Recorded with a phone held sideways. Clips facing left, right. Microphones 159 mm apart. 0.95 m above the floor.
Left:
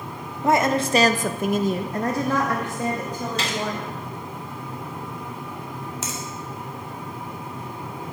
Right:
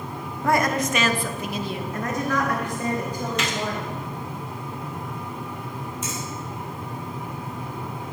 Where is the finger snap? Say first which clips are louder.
Right 1 dB; 80° left, 1.8 m.